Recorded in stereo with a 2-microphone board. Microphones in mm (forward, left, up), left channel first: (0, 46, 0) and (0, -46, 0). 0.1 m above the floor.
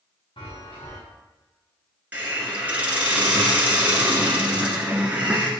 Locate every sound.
0.4 s a chime: 80° left, 4.5 m
2.1 s a hiss: 15° right (ahead or behind), 1.8 m